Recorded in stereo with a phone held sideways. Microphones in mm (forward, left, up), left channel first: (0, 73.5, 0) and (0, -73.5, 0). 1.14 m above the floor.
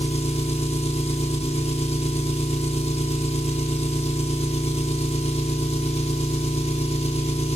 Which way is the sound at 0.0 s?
45° left (ahead or behind).